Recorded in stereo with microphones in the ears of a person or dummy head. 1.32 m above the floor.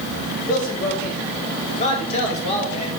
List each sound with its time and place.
0.5 s a man speaking: 55° left (ahead or behind), 3 m; by 3.0 s 35° left (ahead or behind), 5 m